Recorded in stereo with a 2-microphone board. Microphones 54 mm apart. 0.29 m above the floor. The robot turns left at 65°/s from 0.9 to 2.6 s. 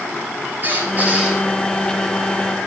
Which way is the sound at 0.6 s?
140° right.